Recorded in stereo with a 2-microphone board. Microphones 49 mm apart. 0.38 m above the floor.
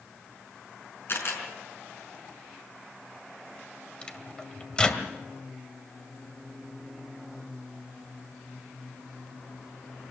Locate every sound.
1.1 s a camera shutter: 50° left (ahead or behind), 5.5 m
4.0 s a microwave: 20° left (ahead or behind), 1.9 m